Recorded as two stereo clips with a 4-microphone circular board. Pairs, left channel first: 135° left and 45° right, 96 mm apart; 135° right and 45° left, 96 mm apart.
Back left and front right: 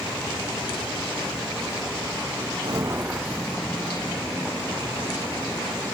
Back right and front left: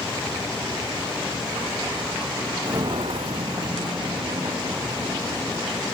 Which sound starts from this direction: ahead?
Footsteps, at 2.6 s.